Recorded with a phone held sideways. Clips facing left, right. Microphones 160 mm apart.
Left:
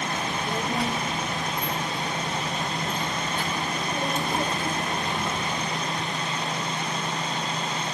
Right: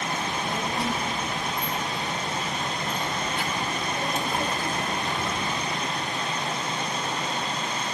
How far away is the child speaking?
About 3 m.